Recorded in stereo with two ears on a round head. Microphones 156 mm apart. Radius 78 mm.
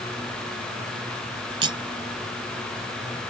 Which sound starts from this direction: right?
Cutlery clinking, at 1.6 s.